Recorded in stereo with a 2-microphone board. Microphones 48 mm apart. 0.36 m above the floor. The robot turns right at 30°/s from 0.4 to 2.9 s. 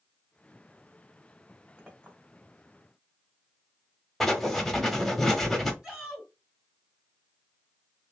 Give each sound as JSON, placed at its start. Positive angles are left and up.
{"t": 1.8, "sound": "a clink", "side_deg": -20, "distance_m": 2.5}
{"t": 4.2, "sound": "writing", "side_deg": 5, "distance_m": 1.1}
{"t": 5.8, "sound": "a shout", "side_deg": -15, "distance_m": 2.0}